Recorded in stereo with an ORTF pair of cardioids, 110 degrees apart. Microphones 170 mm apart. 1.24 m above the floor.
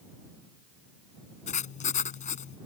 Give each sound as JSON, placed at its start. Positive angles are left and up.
{"t": 1.5, "sound": "writing", "azimuth_deg": 45}